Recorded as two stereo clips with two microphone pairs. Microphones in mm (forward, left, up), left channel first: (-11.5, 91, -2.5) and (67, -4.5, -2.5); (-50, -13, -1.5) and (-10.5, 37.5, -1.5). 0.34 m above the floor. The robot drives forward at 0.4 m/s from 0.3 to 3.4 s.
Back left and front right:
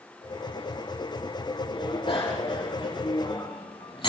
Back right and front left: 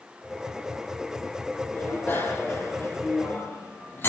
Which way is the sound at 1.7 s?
175° left.